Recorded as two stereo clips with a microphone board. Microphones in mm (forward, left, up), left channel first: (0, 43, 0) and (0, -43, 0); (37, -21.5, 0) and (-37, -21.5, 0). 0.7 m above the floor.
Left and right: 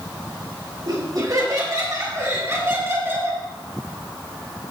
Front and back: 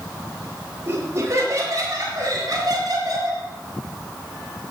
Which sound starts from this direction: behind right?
Laughter, at 0.8 s.